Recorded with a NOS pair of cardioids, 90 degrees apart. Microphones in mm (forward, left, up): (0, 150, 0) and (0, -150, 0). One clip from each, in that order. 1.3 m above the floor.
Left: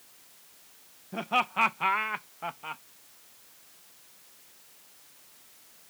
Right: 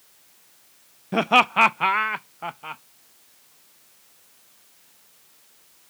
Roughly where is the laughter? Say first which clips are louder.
Right 10 dB; right.